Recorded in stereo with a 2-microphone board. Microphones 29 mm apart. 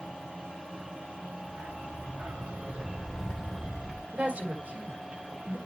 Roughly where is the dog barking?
Right.